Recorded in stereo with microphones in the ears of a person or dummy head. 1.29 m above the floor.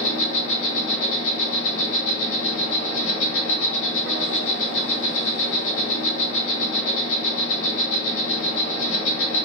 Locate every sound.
0.0 s an insect: 75° left (ahead or behind), 0.9 m